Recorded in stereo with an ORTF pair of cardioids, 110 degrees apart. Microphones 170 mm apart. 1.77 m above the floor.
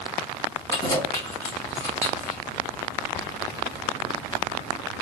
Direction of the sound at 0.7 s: 20° left.